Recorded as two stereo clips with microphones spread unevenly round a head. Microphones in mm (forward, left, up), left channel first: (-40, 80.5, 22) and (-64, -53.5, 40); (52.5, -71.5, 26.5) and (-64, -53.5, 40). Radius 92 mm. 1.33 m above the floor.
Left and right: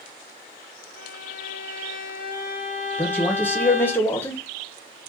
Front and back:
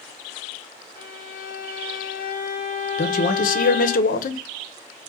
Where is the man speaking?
Straight ahead, 0.6 m.